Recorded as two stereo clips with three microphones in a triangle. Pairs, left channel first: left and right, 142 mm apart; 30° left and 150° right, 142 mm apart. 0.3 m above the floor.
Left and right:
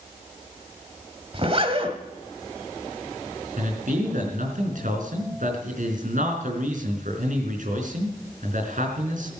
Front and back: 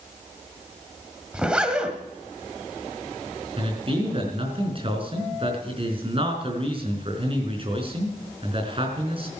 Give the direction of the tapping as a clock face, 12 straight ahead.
I don't hear tapping.